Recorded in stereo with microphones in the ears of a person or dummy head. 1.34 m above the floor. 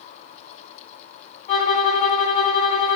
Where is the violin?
25° left (ahead or behind), 1.4 m.